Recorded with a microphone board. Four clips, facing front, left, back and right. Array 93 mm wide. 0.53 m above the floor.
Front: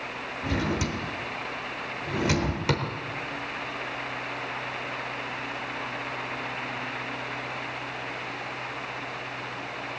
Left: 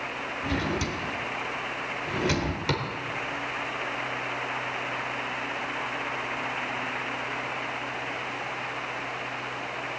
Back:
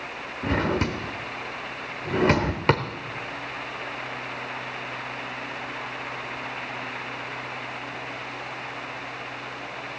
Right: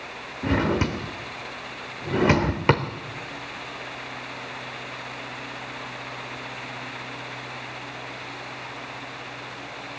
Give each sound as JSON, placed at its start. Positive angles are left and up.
{"t": 0.4, "sound": "a drawer", "azimuth_deg": -130, "distance_m": 1.0}